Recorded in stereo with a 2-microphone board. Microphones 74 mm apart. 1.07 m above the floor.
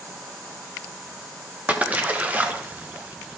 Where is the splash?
20° right (ahead or behind), 0.8 m.